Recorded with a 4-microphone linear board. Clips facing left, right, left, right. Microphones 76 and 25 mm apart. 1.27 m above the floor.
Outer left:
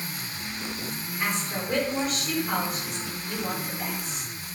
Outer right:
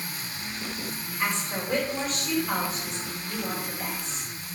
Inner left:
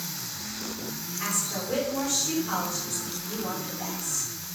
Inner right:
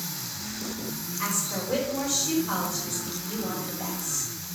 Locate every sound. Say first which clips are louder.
1.2 s a woman speaking: even, inner right 1 dB; centre (ahead or behind), 4 m